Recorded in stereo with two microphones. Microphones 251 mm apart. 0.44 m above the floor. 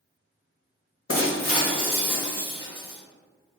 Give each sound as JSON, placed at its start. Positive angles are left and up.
{"t": 1.1, "sound": "breaking glass", "side_deg": 60, "distance_m": 1.2}